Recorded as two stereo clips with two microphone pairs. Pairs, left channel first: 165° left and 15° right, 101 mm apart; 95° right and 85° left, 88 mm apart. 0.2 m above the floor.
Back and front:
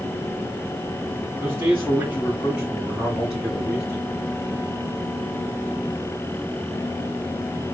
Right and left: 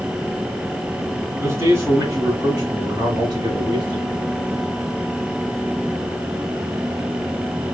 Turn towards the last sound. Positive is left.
turn(degrees=75)